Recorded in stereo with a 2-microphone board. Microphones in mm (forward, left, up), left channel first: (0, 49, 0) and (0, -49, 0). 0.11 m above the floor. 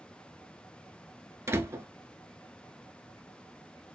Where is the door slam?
25° right (ahead or behind), 0.9 m.